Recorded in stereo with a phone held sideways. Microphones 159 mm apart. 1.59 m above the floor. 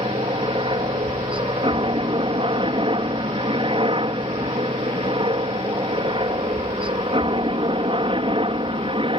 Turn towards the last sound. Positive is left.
turn(degrees=-35)  # may be behind; listen again after turning